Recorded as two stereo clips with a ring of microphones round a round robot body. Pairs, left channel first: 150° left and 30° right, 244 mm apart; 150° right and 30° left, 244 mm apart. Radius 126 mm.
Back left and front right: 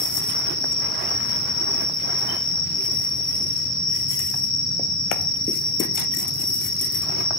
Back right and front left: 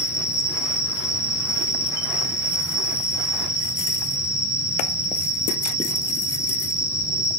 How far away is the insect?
About 1.0 m.